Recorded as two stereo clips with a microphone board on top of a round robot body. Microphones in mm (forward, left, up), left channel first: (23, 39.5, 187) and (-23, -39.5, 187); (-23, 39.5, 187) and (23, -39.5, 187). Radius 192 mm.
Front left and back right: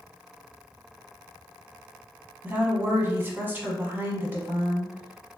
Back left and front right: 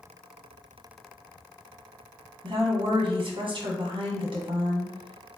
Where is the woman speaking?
50° right, 1.2 m.